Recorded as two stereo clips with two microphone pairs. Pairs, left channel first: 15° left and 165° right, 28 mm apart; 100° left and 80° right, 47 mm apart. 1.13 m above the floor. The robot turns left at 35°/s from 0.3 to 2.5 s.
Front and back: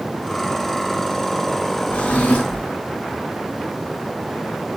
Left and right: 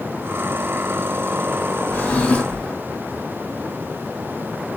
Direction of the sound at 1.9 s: 50° left.